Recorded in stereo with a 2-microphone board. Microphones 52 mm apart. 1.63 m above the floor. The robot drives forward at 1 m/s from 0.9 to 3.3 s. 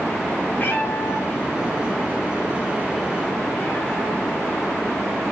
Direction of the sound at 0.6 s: 45° left (ahead or behind).